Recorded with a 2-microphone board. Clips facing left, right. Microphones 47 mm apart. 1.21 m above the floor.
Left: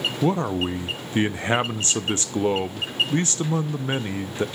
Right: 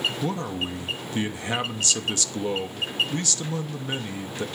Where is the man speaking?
35° left (ahead or behind), 0.5 m.